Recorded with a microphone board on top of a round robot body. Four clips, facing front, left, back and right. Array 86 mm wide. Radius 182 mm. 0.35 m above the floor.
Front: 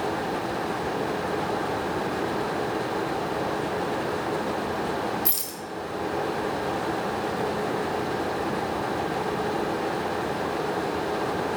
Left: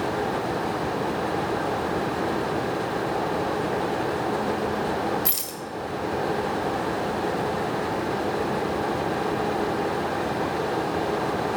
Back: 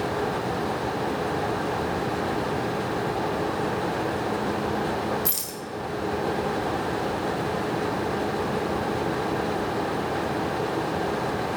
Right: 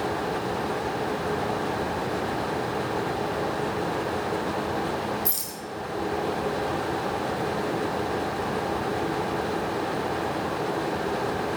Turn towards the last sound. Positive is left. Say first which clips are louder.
# left 2 dB, back 1 dB
turn(degrees=100)